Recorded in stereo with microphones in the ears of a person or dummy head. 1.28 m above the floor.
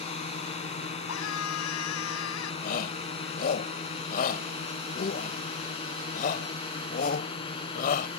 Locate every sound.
0.0 s a drone: 30° left (ahead or behind); by 8.2 s 25° left (ahead or behind)
1.1 s a scream: 75° left (ahead or behind)
2.6 s a shout: 50° left (ahead or behind)